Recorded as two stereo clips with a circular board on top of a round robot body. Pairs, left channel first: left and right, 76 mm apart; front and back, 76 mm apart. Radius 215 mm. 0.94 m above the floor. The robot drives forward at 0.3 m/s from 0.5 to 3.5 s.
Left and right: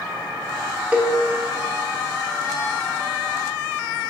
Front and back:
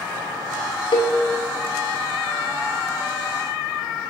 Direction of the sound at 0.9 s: 15° right.